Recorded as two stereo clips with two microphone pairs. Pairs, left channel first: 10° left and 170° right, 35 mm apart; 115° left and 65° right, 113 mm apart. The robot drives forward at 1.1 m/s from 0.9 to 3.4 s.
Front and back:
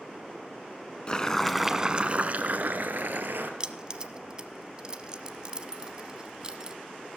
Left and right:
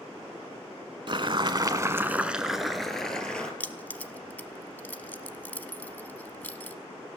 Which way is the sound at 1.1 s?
45° right.